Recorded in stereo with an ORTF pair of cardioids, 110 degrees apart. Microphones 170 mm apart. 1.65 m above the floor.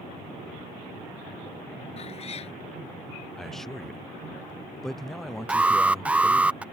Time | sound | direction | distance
2.0 | a cat meowing | 40° left | ?
3.4 | a man speaking | straight ahead | ?
5.5 | an alarm | 10° right | ?